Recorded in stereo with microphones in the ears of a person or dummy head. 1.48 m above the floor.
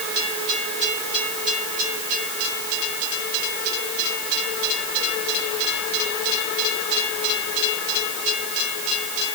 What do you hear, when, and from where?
Only background noise.